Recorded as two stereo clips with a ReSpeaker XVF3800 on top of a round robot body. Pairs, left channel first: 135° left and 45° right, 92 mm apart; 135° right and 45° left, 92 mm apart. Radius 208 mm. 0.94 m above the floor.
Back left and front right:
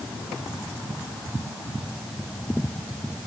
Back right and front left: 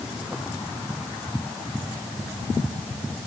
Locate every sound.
Only background noise.